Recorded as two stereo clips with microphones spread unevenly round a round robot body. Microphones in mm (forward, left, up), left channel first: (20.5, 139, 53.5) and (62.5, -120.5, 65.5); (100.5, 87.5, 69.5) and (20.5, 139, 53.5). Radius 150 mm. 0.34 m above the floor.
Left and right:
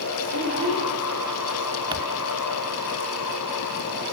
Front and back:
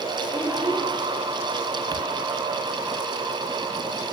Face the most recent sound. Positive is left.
turn(degrees=-155)